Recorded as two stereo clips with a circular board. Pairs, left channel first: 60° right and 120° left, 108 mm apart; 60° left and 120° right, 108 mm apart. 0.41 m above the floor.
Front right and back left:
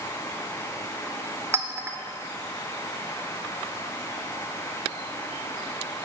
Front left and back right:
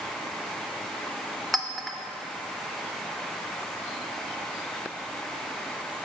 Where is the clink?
145° left, 0.6 m.